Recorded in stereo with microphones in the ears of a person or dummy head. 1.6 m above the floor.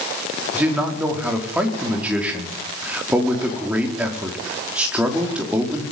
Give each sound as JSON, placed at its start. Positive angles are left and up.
{"t": 0.5, "sound": "a man speaking", "side_deg": -10, "distance_m": 4.5}